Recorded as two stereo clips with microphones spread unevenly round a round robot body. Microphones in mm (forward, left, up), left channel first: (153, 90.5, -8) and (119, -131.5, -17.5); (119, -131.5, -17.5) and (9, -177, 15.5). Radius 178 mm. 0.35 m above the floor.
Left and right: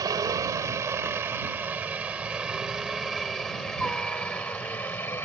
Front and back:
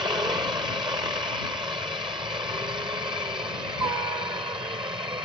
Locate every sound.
0.0 s a helicopter: 145° right; by 5.2 s 155° left